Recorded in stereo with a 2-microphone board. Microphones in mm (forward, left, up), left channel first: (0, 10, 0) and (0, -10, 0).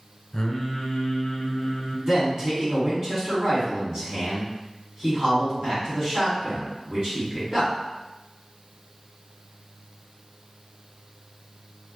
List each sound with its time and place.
0.3 s singing: 35° left (ahead or behind), 0.6 m
2.1 s a man speaking: 30° right (ahead or behind), 1.5 m